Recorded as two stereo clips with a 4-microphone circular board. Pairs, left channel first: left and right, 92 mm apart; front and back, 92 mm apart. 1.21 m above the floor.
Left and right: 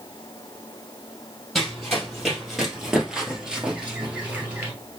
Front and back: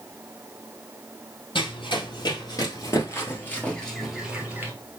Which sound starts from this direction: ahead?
Running footsteps, at 1.6 s.